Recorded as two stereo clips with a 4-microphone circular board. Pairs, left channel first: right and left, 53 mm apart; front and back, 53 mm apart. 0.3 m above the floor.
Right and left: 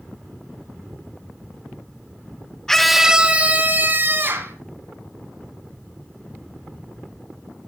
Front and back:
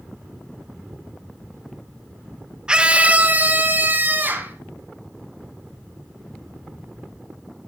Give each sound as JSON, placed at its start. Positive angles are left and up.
{"t": 2.7, "sound": "a scream", "azimuth_deg": -150, "distance_m": 0.9}